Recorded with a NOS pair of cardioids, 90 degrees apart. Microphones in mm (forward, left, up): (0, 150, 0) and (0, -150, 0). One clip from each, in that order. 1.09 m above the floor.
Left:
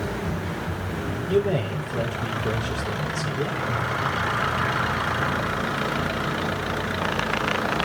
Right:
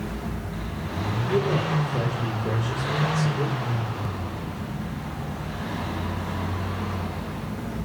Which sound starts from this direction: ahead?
A man speaking, at 1.3 s.